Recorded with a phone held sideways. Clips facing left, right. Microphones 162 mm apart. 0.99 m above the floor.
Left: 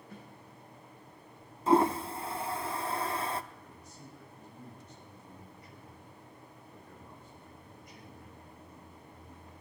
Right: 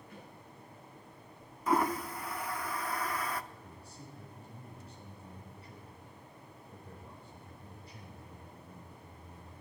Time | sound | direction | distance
0.1 | a snare drum | 35° left (ahead or behind) | 7 m
1.7 | a toilet flushing | 25° left (ahead or behind) | 0.5 m
3.5 | a man speaking | 30° right (ahead or behind) | 5.5 m